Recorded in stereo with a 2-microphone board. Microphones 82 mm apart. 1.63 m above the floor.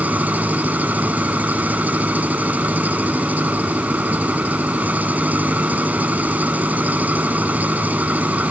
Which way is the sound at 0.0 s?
20° right (ahead or behind).